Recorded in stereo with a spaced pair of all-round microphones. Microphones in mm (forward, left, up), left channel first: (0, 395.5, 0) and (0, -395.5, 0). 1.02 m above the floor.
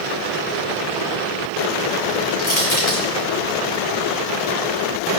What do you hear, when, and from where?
2.4 s crushing: 55° left (ahead or behind), 4 m